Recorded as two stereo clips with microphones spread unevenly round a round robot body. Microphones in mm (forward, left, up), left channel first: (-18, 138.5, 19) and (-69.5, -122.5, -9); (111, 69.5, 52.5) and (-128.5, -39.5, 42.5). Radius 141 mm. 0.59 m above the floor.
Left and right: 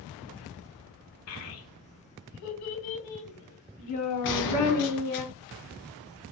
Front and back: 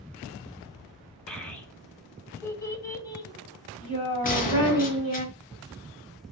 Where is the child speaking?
110° left, 3 m; by 5.2 s 95° left, 5.5 m.